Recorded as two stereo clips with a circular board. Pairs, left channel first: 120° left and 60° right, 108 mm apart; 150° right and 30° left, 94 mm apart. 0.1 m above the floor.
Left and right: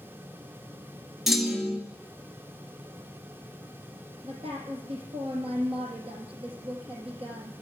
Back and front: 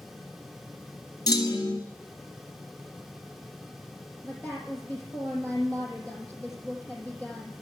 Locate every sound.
1.3 s a clunk: 145° right, 1.2 m
4.2 s a woman speaking: 80° right, 3.5 m